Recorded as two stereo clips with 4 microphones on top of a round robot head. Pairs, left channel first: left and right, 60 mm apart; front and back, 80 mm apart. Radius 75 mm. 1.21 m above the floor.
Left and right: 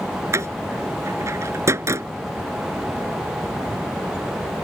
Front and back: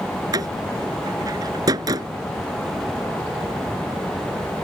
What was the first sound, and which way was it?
A door slam, 130° right.